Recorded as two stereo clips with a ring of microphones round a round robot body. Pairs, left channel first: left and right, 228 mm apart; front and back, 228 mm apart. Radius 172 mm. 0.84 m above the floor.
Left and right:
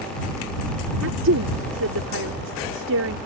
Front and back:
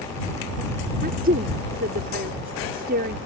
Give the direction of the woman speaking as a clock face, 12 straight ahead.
4 o'clock.